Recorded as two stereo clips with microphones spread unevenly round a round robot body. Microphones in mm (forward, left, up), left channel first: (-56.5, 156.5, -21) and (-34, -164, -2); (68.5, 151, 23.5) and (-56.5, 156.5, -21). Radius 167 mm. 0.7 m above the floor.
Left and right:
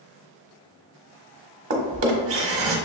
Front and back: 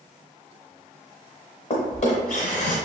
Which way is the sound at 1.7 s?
35° right.